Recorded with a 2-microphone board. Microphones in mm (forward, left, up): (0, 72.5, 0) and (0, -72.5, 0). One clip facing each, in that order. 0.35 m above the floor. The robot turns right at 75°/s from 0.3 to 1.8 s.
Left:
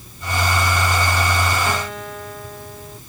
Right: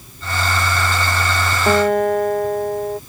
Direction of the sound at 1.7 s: 45° right (ahead or behind).